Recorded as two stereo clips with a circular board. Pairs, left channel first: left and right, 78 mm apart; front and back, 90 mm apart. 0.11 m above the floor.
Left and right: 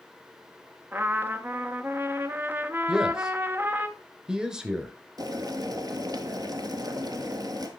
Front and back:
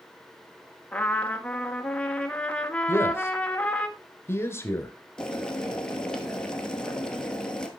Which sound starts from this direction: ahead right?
A trumpet, at 0.9 s.